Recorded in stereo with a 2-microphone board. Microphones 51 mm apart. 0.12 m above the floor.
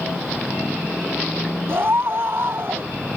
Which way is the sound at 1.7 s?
50° right (ahead or behind).